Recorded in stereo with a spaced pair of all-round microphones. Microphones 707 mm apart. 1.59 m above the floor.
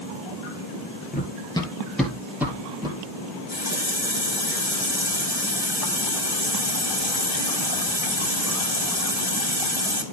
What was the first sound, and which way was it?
Running footsteps, 10° left (ahead or behind).